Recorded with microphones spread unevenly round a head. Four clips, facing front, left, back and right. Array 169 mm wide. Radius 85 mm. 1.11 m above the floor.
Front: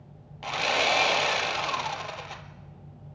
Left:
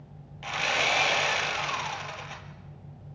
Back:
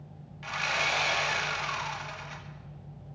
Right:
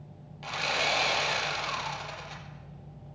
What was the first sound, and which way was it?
Sawing, 5° left.